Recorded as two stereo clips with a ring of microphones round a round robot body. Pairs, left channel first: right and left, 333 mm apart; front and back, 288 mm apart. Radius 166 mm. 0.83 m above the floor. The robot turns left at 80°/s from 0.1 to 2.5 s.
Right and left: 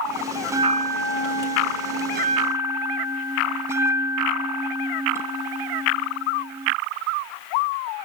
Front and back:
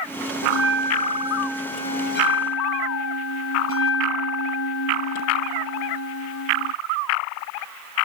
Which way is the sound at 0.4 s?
175° left.